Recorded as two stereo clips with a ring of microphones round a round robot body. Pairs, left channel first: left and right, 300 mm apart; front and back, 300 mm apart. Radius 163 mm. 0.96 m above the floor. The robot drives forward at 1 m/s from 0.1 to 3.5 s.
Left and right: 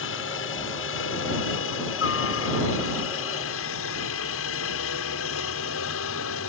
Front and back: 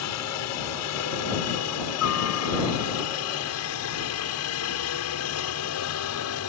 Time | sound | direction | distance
0.0 | a helicopter | 40° left | ?